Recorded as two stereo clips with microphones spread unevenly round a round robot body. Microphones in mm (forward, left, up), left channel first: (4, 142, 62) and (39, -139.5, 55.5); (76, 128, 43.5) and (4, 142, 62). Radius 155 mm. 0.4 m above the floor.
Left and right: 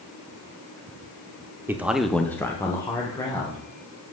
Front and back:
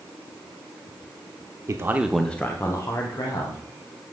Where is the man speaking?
155° right, 0.8 m; by 3.6 s 20° left, 2 m.